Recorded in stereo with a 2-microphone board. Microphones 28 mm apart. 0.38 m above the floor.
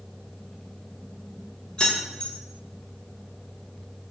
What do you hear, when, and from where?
1.8 s keys jangling: 35° left (ahead or behind), 0.9 m